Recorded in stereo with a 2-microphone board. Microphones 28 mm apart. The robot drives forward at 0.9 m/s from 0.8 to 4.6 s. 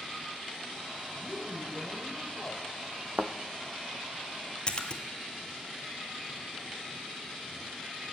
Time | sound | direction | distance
1.1 | a woman speaking | 45° left (ahead or behind) | 2 m
3.2 | a thud | 45° right (ahead or behind) | 1.1 m
4.7 | a splash | 30° left (ahead or behind) | 1.4 m